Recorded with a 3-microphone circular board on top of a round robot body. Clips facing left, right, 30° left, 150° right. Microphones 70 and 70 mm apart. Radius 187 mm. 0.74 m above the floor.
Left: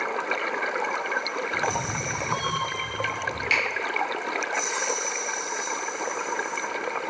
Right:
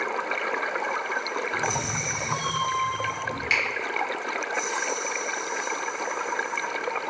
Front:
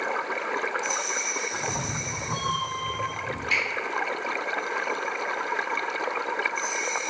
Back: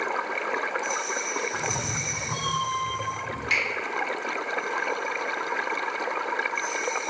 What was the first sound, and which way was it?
A cat meowing, 30° right.